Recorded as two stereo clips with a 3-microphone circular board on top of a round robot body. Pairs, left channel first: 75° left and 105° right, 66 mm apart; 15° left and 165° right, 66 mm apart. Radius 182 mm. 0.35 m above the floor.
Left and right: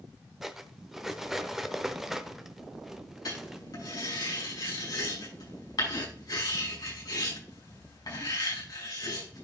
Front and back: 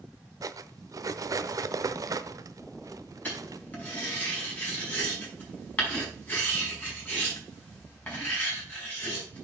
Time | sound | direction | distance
0.4 | cutlery clinking | 170° left | 1.0 m
3.2 | writing | 80° left | 5.5 m